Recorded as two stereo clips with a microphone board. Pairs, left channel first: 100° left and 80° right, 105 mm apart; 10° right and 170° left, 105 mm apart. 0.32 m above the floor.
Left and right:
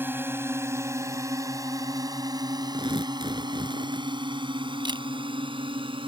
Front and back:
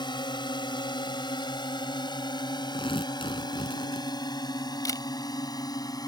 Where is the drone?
20° right; by 6.1 s 60° right.